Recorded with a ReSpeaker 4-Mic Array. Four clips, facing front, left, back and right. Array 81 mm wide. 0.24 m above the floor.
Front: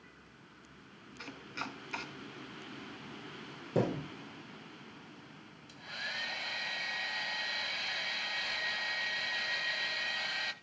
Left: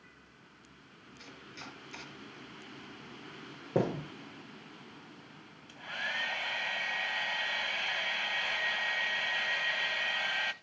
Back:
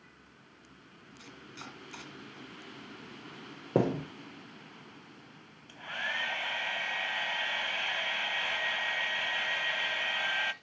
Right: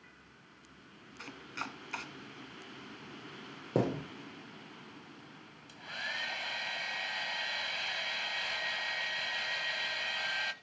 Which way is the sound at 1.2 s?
60° right.